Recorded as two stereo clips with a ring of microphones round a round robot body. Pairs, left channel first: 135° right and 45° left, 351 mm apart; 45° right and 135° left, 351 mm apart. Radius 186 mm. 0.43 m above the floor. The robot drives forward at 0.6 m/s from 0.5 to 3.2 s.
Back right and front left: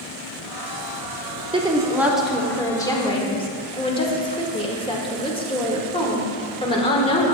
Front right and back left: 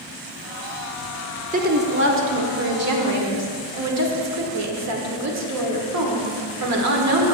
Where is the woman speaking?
100° left, 1.3 m; by 7.3 s 155° left, 1.7 m.